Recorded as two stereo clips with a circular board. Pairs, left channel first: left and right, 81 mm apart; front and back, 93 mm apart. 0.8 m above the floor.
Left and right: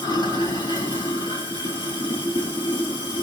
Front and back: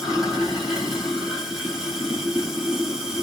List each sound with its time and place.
0.0 s running water: 95° left, 2.5 m